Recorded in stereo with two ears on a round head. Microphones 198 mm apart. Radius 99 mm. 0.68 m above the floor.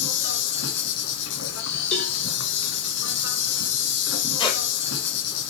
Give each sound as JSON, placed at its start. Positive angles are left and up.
{"t": 0.0, "sound": "an insect", "side_deg": 50, "distance_m": 1.4}
{"t": 1.9, "sound": "a cowbell", "side_deg": 30, "distance_m": 2.0}
{"t": 4.4, "sound": "a squeak", "side_deg": 20, "distance_m": 1.7}